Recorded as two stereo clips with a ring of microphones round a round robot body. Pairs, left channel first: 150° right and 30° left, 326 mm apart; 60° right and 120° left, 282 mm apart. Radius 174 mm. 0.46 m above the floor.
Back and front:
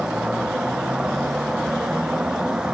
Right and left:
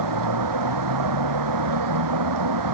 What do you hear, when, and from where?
0.0 s a vehicle: 120° left